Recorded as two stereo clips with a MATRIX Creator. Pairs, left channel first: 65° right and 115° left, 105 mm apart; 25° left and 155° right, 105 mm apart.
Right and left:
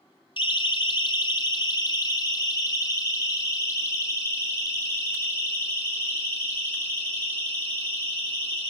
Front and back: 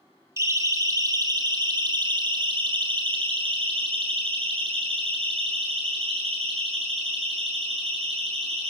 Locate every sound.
0.4 s a siren: 95° right, 3 m; by 8.7 s 140° right, 9.5 m